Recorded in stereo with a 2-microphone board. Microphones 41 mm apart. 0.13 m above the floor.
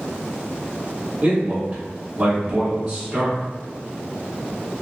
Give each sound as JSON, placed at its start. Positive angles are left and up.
{"t": 1.2, "sound": "a man speaking", "side_deg": -20, "distance_m": 1.1}